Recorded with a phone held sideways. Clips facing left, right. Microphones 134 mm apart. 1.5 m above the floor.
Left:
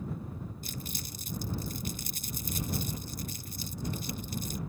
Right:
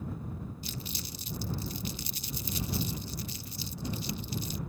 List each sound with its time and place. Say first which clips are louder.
0.6 s crumpling: even; 45° left (ahead or behind)